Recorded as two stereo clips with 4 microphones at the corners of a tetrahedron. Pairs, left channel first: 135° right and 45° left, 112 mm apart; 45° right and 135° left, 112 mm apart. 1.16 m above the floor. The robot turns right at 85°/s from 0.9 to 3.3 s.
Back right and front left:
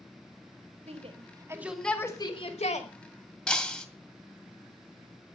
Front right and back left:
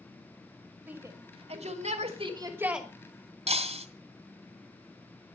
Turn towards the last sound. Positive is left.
turn(degrees=140)